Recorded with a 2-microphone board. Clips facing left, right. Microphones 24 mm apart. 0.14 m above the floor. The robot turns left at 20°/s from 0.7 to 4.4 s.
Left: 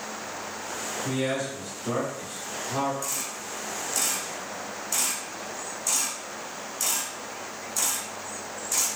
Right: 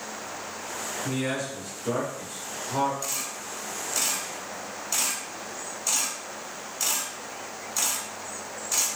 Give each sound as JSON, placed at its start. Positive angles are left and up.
{"t": 1.0, "sound": "a man speaking", "side_deg": 25, "distance_m": 1.9}
{"t": 3.0, "sound": "a camera shutter", "side_deg": -30, "distance_m": 0.9}